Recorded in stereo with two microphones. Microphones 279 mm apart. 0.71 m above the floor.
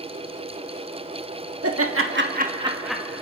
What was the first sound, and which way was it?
Laughter, 55° right (ahead or behind).